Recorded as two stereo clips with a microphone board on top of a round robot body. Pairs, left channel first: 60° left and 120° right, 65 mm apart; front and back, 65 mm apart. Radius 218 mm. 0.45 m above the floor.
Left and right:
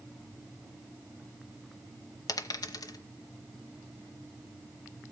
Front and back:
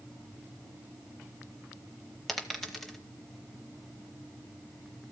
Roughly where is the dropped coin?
Left.